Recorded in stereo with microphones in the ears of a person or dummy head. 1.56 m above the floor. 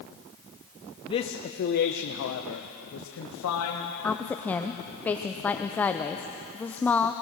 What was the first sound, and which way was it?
A man speaking, 30° left (ahead or behind).